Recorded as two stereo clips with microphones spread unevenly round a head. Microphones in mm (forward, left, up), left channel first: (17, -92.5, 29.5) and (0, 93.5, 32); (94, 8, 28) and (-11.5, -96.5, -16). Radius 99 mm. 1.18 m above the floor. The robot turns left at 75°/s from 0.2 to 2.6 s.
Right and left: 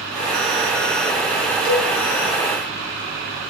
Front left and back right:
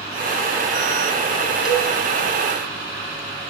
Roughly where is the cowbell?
Ahead right.